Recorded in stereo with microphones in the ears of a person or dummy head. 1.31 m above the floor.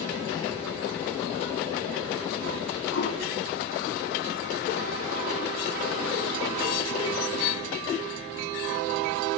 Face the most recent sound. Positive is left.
turn(degrees=55)  # may be behind; listen again after turning